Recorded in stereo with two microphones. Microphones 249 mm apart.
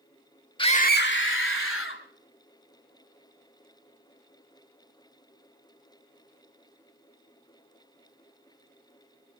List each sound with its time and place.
0.6 s a scream: 20° left (ahead or behind), 1.0 m; by 2.0 s 55° left (ahead or behind), 2.5 m